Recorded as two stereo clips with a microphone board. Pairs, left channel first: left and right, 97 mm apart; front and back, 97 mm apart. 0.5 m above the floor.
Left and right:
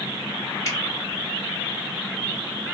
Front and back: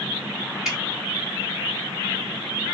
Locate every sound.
0.7 s dripping: 100° left, 1.4 m